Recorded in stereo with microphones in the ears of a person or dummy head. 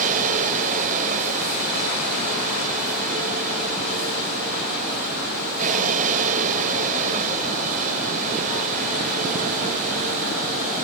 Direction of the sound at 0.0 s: 45° right (ahead or behind).